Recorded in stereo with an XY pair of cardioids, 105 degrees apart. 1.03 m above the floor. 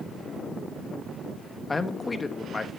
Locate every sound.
1.7 s a man speaking: 25° left, 1.3 m